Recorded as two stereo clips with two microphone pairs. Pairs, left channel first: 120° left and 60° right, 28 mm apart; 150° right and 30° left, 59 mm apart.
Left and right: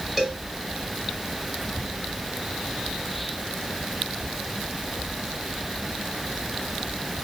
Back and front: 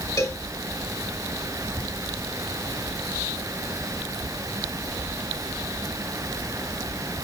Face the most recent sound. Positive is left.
turn(degrees=-145)